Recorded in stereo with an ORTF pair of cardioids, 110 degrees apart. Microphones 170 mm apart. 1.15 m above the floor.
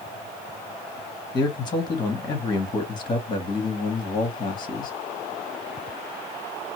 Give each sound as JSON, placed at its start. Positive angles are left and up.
{"t": 1.3, "sound": "a man speaking", "azimuth_deg": 25, "distance_m": 1.3}